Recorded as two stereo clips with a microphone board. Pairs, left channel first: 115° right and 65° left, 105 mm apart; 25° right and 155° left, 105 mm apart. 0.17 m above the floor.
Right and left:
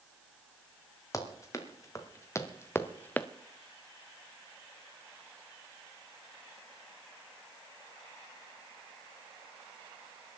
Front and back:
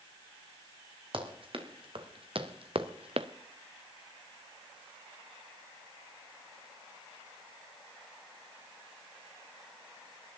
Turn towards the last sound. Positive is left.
turn(degrees=175)